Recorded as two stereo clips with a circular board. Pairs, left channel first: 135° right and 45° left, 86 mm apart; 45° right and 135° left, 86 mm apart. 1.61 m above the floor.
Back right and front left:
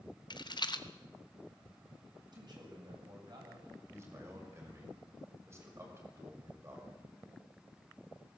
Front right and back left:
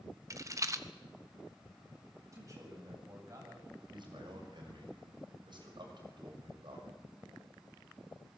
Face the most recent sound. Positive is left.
turn(degrees=105)